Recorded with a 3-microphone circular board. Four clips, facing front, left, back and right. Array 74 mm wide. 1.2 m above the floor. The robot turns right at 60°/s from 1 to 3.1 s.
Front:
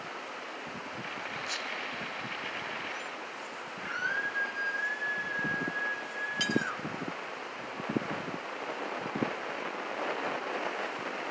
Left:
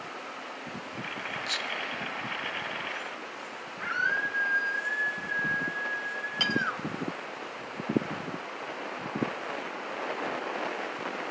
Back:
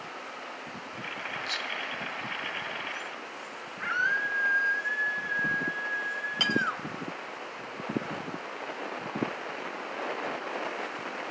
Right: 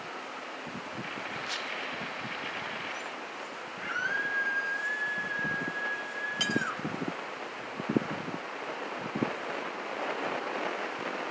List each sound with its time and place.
1.5 s whispering: 75° left, 1.3 m; by 3.1 s 175° left, 1.3 m
3.8 s a scream: 165° left, 2.5 m
6.4 s cutlery clinking: 155° left, 0.5 m